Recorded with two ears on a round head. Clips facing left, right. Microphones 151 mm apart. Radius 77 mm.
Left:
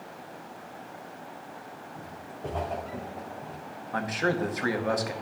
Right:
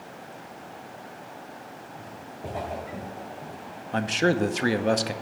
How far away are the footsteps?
About 3.5 m.